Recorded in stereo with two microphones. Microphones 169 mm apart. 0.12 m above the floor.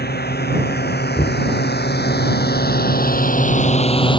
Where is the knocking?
30° left (ahead or behind).